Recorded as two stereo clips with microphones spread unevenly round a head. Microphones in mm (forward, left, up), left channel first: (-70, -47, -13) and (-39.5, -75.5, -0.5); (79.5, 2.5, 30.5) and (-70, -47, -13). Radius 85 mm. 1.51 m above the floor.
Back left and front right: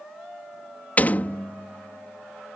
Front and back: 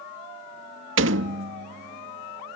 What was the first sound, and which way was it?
A door slam, 165° right.